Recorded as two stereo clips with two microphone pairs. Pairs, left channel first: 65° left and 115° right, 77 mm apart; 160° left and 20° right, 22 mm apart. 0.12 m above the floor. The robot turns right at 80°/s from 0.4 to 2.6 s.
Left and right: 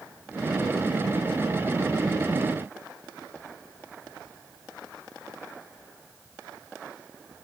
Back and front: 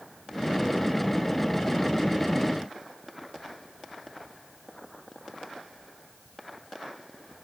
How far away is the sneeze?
No sneeze in this recording.